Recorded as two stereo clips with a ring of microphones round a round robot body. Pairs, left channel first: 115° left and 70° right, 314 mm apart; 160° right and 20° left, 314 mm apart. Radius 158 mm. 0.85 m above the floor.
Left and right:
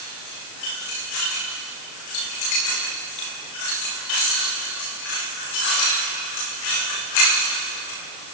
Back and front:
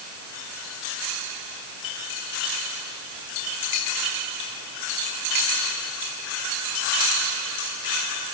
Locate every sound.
Only background noise.